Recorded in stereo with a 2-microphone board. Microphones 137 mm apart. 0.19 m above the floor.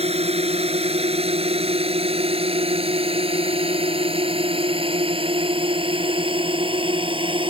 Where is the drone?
50° right (ahead or behind); by 7.5 s 40° right (ahead or behind).